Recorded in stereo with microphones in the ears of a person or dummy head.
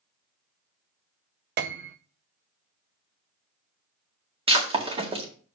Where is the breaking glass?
30° right (ahead or behind), 1.8 m.